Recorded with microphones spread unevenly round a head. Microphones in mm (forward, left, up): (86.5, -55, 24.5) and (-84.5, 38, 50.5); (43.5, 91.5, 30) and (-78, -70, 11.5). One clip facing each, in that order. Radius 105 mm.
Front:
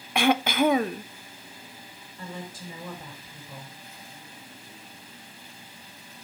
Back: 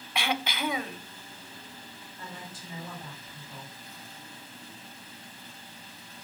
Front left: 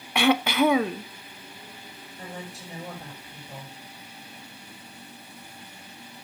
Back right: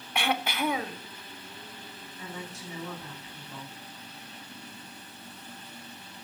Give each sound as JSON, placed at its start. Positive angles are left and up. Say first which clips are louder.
{"t": 0.1, "sound": "throat clearing", "louder": "front 10 dB, front left 9 dB", "azimuth_deg": 20, "distance_m": 0.6}
{"t": 2.2, "sound": "a woman speaking", "louder": "front 6 dB, front left 2 dB", "azimuth_deg": -5, "distance_m": 9.5}